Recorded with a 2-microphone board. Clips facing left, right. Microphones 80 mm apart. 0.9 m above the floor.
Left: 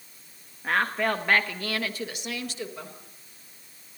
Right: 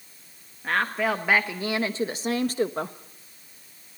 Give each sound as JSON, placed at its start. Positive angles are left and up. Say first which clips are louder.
{"t": 0.6, "sound": "a woman speaking", "louder": "even", "side_deg": 5, "distance_m": 1.4}